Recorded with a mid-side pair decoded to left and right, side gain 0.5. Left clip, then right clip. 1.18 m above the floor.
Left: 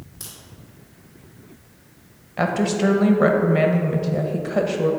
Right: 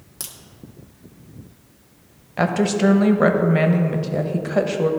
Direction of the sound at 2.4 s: 20° right.